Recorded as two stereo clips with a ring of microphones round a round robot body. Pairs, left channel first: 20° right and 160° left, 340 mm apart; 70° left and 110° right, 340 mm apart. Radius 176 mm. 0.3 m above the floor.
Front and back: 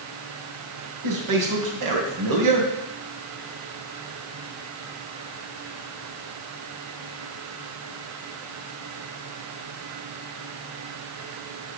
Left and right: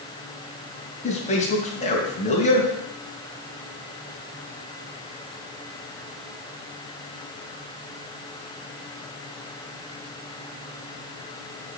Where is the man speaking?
135° left, 3.5 m.